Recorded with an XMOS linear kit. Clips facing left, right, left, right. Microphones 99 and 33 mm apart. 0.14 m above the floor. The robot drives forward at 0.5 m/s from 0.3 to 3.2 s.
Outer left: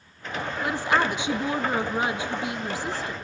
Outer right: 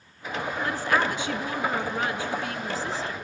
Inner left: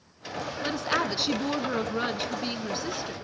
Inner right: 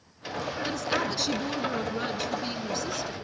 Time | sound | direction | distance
0.6 | a woman speaking | 15° left (ahead or behind) | 1.3 m